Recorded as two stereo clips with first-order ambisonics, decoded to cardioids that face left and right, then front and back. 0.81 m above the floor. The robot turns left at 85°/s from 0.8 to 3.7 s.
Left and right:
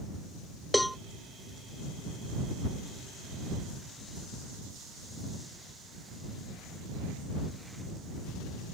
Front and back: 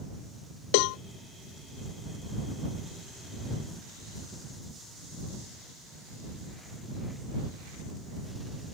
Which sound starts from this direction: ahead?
A cowbell, at 0.7 s.